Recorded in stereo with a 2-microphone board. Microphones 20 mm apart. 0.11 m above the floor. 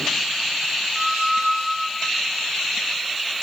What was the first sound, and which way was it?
A squeak, 15° right (ahead or behind).